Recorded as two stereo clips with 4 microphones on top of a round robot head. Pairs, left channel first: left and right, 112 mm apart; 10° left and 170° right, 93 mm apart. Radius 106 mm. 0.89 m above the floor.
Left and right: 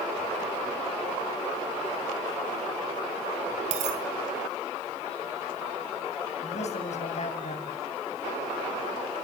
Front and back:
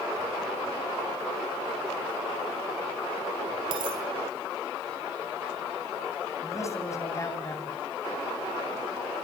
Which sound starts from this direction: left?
A man speaking, at 6.4 s.